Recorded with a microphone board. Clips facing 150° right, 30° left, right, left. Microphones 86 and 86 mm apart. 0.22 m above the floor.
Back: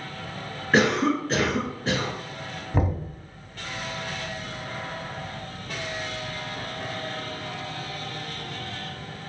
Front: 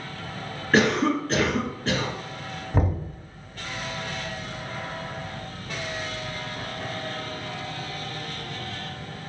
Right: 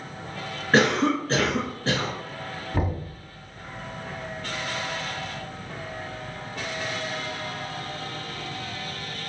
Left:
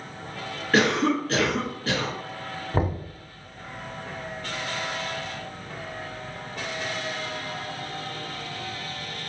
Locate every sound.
0.7 s a cough: 80° right, 1.8 m
2.7 s knocking: 120° left, 1.0 m